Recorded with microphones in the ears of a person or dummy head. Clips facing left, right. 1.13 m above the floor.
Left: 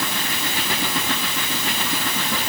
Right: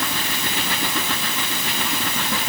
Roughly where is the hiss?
No hiss in this recording.